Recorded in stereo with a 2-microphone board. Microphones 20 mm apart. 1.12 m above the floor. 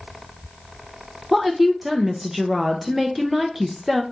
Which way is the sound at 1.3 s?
10° right (ahead or behind).